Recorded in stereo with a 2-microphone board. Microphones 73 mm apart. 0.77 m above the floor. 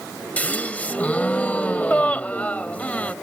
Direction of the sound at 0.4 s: 20° left (ahead or behind).